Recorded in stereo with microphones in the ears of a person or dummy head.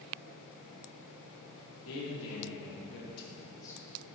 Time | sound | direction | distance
1.9 | a man speaking | 75° left (ahead or behind) | 3 m